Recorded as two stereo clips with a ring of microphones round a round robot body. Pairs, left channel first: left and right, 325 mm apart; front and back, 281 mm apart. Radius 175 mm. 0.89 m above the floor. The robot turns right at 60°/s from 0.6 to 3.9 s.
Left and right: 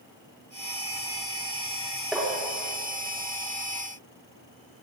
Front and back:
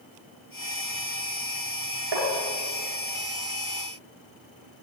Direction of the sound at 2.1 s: 175° right.